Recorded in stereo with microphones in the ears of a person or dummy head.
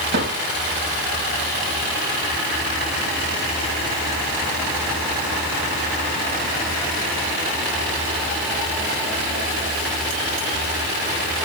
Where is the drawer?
60° right (ahead or behind), 6.5 m.